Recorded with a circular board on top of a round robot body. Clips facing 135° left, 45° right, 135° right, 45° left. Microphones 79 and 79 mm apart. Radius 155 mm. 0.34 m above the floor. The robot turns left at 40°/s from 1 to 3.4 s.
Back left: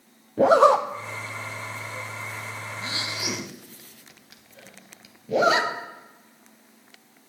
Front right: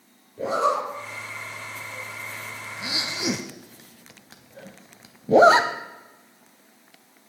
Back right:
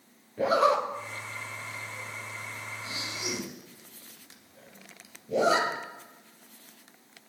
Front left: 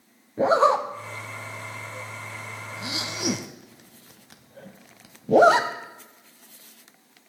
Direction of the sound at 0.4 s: 105° left.